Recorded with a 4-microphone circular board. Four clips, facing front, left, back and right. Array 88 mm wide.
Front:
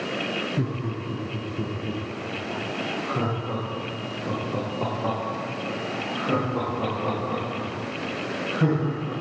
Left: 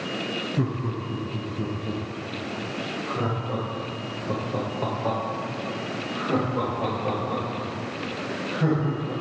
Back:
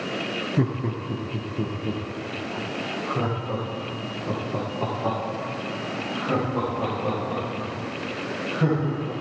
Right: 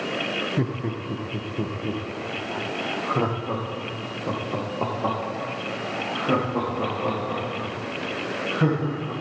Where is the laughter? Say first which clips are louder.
Right 1 dB, back 3 dB; 145° right, 2 m; by 9.1 s 70° right, 10 m.